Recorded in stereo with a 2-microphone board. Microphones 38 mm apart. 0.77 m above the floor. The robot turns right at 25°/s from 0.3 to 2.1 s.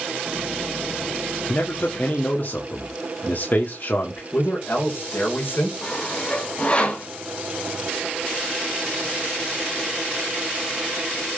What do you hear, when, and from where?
1.5 s a man speaking: 65° left (ahead or behind), 1.7 m; by 4.2 s 60° left (ahead or behind), 1.7 m
4.3 s a man speaking: 65° left (ahead or behind), 3.5 m
5.8 s sawing: 30° left (ahead or behind), 2.5 m